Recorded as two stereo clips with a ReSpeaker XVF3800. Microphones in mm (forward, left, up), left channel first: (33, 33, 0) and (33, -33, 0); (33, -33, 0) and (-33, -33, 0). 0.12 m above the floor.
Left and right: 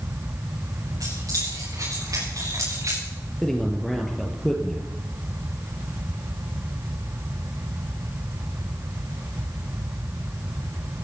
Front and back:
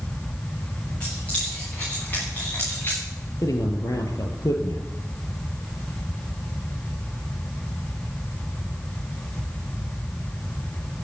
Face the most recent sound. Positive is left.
turn(degrees=5)